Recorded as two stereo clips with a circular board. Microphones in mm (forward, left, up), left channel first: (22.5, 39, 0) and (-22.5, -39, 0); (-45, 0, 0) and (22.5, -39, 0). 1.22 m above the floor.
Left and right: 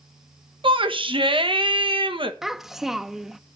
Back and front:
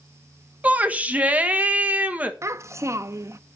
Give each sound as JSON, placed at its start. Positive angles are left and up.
{"t": 0.6, "sound": "a shout", "azimuth_deg": -100, "distance_m": 1.2}
{"t": 2.4, "sound": "a child speaking", "azimuth_deg": -35, "distance_m": 0.6}